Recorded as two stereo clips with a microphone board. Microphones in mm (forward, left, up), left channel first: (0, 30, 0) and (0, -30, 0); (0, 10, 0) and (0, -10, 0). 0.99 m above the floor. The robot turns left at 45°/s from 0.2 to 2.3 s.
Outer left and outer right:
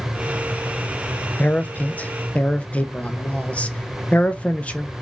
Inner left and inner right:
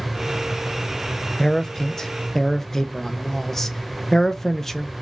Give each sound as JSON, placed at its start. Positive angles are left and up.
{"t": 1.4, "sound": "a man speaking", "side_deg": 30, "distance_m": 0.6}